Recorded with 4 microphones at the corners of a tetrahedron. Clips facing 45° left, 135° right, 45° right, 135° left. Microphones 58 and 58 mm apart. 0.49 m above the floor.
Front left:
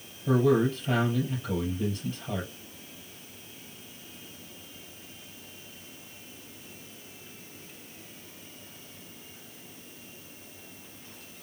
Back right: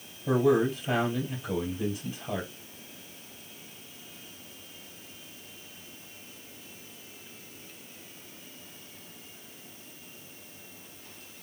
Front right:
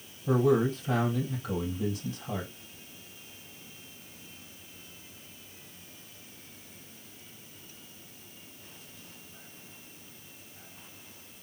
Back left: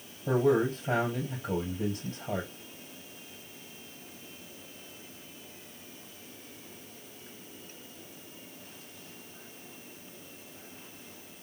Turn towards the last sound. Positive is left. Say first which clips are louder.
# even, front right 1 dB
turn(degrees=140)